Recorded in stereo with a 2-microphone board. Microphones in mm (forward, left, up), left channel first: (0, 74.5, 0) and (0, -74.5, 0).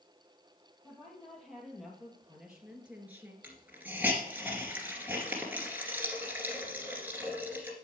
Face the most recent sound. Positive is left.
turn(degrees=-10)  # may be behind; listen again after turning